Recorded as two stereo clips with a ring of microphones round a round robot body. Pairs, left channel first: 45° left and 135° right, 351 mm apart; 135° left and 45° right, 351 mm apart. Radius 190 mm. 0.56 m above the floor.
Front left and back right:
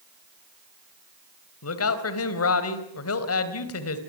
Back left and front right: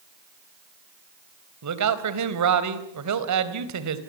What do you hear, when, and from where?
1.6 s a man speaking: 5° right, 3.5 m